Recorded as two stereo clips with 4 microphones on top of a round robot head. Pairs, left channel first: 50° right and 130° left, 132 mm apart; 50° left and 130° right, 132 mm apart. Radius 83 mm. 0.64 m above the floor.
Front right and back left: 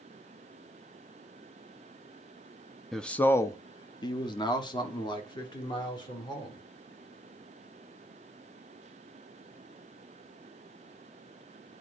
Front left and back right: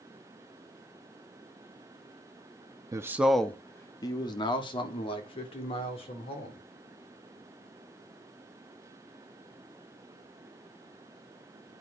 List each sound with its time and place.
2.9 s a man speaking: 140° right, 0.6 m; by 6.7 s 5° left, 3 m